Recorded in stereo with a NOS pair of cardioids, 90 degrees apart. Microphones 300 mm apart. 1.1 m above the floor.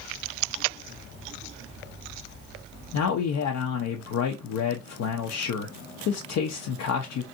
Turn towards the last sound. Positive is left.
turn(degrees=70)